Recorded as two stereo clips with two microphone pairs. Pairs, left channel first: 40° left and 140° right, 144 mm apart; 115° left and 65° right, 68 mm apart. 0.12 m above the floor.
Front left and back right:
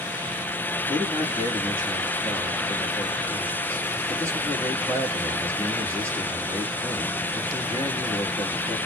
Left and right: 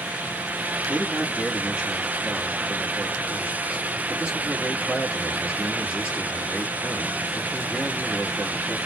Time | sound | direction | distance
0.9 | a man speaking | 95° right | 1.8 m